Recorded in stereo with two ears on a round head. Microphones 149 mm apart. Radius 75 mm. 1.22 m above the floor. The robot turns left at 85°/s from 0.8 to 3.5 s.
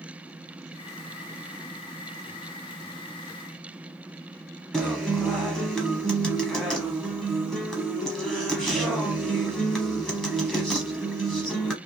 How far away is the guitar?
About 0.9 m.